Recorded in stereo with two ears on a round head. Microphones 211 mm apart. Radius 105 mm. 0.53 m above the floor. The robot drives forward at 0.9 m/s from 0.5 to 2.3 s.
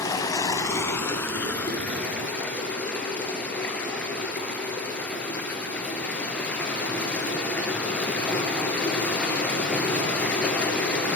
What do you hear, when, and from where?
0.0 s running water: 15° left (ahead or behind), 0.9 m; by 11.2 s 5° left (ahead or behind), 2.5 m